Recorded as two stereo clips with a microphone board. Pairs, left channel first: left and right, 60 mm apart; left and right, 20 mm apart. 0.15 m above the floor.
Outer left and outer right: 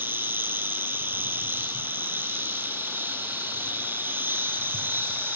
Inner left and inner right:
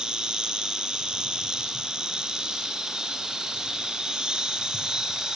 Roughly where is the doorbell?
No doorbell in this recording.